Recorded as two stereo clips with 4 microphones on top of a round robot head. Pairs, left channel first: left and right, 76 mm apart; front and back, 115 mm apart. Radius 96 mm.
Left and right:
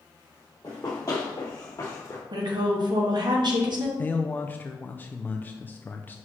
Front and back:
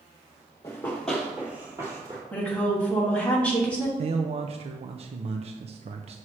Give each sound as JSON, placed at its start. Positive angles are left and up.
{"t": 0.6, "sound": "running footsteps", "azimuth_deg": 45, "distance_m": 1.4}
{"t": 2.3, "sound": "a woman speaking", "azimuth_deg": -80, "distance_m": 1.3}
{"t": 4.0, "sound": "a man speaking", "azimuth_deg": 155, "distance_m": 0.6}